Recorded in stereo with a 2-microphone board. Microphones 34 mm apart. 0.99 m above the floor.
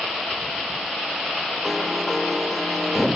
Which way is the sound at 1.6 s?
5° right (ahead or behind).